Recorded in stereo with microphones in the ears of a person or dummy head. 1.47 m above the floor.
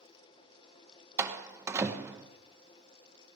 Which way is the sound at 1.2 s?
15° right (ahead or behind).